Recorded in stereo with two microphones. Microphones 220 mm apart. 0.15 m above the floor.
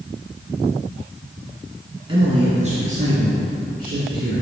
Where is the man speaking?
25° right (ahead or behind), 1.8 m; by 4.4 s 45° right (ahead or behind), 4 m.